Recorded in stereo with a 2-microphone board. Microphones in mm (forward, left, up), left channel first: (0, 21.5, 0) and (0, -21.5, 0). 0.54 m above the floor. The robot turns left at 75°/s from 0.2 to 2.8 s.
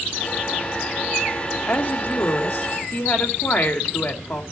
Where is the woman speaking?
150° left, 1.9 m; by 4.4 s 65° left, 1.9 m.